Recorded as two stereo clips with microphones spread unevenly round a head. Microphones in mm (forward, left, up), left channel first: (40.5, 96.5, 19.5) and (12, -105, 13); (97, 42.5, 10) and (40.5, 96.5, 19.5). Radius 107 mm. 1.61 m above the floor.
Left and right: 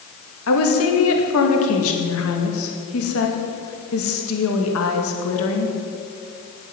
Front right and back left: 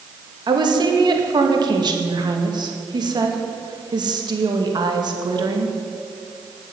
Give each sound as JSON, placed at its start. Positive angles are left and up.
{"t": 0.5, "sound": "a woman speaking", "azimuth_deg": 110, "distance_m": 2.5}